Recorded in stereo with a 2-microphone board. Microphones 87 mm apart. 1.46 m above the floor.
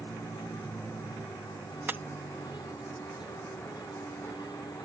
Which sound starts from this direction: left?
A vehicle, at 0.0 s.